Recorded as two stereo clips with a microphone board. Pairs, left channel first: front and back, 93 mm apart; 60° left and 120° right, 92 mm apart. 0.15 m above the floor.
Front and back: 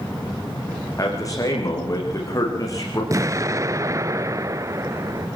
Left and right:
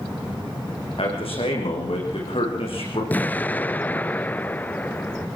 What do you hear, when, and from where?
1.0 s a man speaking: 50° left, 9.5 m
3.1 s an explosion: 130° left, 0.5 m